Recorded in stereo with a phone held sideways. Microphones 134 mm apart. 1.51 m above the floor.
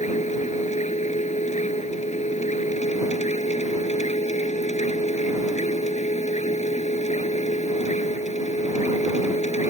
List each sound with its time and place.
0.0 s a machine running: 60° left (ahead or behind)